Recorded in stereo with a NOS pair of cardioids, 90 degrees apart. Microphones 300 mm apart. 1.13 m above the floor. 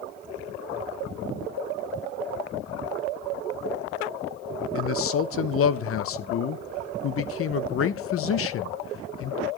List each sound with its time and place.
4.8 s a man speaking: 55° left, 0.8 m